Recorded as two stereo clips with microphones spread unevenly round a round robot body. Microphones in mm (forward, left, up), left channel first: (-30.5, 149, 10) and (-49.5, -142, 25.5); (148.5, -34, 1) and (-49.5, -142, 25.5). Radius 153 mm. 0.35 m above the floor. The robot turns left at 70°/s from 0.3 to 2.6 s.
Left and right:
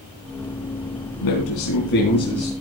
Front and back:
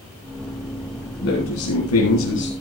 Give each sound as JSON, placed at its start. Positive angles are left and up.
{"t": 1.2, "sound": "a man speaking", "azimuth_deg": 85, "distance_m": 3.0}